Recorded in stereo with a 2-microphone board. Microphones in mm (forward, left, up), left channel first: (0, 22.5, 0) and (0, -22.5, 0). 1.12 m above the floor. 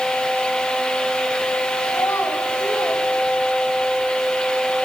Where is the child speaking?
85° left, 3.5 m; by 3.9 s 70° left (ahead or behind), 2.5 m.